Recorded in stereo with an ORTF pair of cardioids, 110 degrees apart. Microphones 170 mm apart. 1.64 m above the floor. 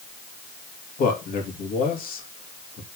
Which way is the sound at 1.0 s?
60° left.